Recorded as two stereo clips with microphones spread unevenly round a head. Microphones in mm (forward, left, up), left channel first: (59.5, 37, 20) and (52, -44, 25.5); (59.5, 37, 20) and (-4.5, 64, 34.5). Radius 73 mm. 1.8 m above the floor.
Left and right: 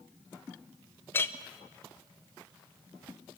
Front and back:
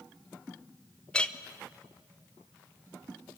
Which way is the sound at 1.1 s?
60° left.